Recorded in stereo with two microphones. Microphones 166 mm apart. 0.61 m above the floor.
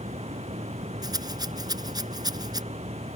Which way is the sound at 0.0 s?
35° right (ahead or behind).